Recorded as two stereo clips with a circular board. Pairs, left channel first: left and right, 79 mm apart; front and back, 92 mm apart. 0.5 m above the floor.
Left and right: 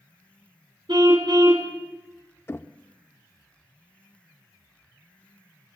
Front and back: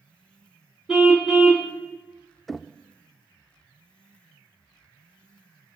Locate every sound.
0.9 s a car horn: 95° right, 2.5 m
2.5 s knocking: 85° left, 0.7 m